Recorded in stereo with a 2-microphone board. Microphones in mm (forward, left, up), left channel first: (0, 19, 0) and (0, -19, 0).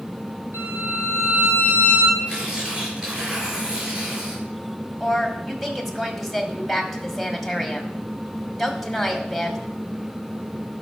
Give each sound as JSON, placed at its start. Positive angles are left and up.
{"t": 0.5, "sound": "a violin", "side_deg": -80, "distance_m": 5.5}
{"t": 2.3, "sound": "tearing paper", "side_deg": -15, "distance_m": 7.5}
{"t": 5.0, "sound": "a woman speaking", "side_deg": 0, "distance_m": 2.5}